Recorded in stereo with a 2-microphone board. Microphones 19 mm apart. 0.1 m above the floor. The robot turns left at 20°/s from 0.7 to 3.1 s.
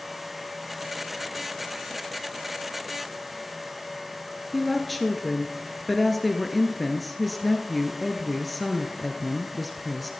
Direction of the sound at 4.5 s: 5° left (ahead or behind).